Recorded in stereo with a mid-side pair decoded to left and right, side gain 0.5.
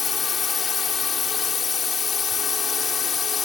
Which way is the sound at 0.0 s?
40° left.